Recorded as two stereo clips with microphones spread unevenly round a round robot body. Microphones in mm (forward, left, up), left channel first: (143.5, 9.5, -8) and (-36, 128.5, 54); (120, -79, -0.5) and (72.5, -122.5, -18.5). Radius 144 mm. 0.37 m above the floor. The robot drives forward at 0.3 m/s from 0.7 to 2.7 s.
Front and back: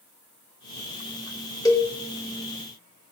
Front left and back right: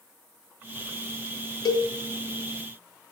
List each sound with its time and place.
1.6 s a cowbell: 30° left, 1.2 m; by 1.9 s 35° left, 1.1 m